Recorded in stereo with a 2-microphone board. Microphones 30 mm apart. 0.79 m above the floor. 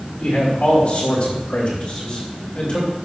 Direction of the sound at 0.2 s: 55° left (ahead or behind).